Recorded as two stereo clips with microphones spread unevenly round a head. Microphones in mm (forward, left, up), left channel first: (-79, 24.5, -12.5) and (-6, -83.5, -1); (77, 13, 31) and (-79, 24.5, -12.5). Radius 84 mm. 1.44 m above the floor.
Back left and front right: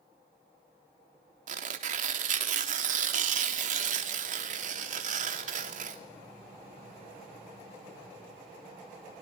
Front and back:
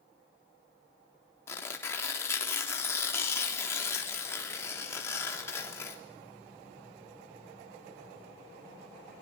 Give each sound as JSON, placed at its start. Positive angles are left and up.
{"t": 1.5, "sound": "tearing paper", "azimuth_deg": -80, "distance_m": 3.5}